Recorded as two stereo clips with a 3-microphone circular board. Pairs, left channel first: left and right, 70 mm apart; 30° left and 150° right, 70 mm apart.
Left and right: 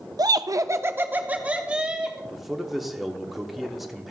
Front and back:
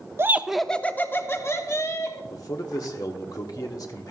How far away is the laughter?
About 0.6 m.